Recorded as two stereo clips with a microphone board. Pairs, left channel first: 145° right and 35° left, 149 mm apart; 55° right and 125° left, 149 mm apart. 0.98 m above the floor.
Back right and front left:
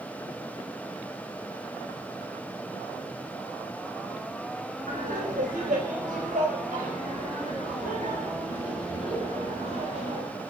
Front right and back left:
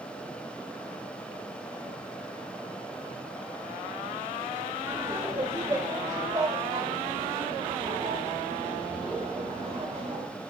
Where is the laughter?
50° left, 4.5 m; by 10.2 s 75° left, 7.5 m.